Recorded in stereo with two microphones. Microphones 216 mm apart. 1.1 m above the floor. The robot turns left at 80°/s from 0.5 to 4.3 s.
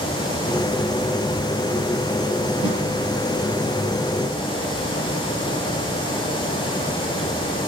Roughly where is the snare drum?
Left.